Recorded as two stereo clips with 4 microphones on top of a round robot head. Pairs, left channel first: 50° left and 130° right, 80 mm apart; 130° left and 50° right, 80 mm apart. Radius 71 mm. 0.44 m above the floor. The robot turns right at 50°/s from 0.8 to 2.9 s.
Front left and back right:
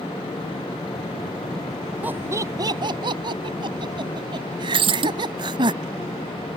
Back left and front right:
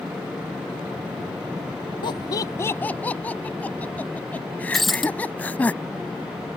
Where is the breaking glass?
140° right.